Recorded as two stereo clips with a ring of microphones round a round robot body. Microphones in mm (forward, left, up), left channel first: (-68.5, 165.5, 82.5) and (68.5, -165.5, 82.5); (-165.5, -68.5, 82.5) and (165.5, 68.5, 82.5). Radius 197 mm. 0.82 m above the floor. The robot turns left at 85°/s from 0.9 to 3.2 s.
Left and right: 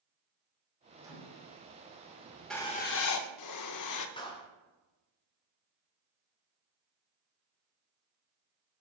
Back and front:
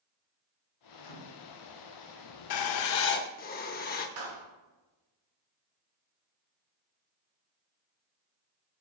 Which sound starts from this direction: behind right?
A microwave, at 1.0 s.